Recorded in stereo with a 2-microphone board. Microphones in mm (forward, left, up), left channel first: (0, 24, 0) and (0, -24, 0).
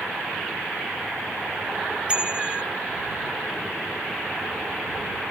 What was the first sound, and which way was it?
A bicycle bell, 20° right (ahead or behind).